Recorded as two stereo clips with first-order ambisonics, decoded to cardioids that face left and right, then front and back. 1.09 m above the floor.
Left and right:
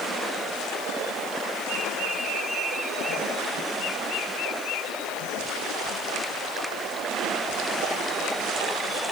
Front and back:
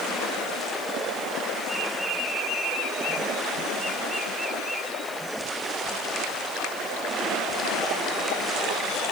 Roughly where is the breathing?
No breathing in this recording.